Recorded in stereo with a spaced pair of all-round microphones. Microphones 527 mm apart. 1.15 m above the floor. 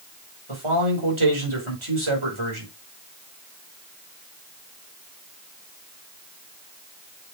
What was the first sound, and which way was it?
A man speaking, 65° right (ahead or behind).